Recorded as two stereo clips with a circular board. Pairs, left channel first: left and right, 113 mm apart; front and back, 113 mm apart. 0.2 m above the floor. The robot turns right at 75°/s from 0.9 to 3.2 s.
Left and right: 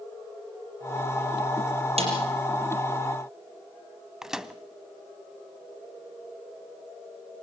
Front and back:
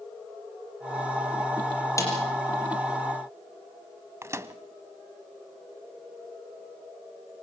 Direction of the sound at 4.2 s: 170° right.